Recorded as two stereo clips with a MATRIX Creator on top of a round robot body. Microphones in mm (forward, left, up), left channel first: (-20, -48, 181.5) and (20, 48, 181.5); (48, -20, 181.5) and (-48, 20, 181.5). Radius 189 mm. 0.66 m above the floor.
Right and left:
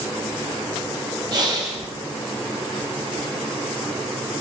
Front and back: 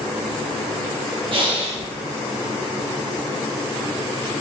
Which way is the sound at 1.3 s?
120° left.